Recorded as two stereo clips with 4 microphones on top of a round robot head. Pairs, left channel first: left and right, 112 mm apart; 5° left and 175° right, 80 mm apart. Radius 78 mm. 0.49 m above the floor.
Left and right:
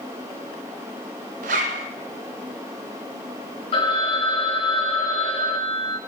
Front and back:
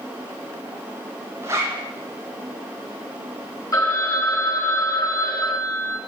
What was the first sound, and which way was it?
A zipper, 100° right.